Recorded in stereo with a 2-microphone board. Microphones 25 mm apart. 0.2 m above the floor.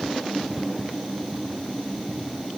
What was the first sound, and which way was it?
Only background noise.